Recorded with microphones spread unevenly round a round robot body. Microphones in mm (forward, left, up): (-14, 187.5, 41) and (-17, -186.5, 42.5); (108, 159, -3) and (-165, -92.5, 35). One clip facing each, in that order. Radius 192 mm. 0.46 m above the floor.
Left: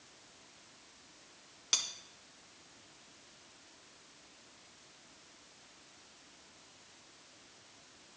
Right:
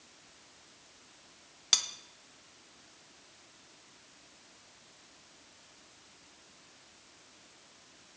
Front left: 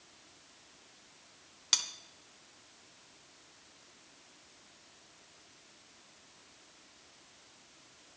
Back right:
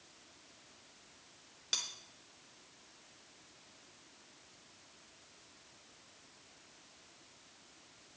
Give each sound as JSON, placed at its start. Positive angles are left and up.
{"t": 1.7, "sound": "cutlery clinking", "azimuth_deg": -20, "distance_m": 0.7}